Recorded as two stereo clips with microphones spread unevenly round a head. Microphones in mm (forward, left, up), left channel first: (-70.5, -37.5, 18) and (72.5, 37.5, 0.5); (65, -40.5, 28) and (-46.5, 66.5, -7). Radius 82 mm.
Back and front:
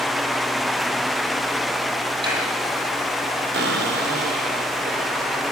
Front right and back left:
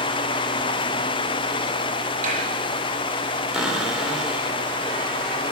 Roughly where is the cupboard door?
Ahead left.